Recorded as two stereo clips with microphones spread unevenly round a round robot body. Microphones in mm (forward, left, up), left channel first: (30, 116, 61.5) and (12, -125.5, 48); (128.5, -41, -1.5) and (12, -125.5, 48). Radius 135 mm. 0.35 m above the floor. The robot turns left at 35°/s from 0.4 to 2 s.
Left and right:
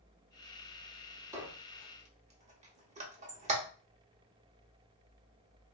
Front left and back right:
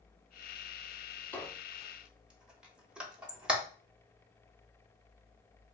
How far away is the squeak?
About 1.0 m.